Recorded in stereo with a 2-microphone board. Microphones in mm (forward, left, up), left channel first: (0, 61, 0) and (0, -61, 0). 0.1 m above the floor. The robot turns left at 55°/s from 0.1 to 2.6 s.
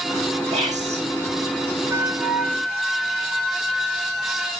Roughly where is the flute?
Behind right.